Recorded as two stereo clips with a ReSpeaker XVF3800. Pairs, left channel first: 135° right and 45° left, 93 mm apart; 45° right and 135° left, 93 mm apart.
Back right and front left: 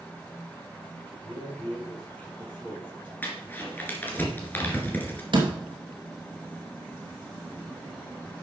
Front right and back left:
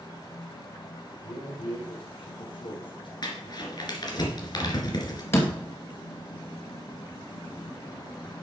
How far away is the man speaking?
About 4 m.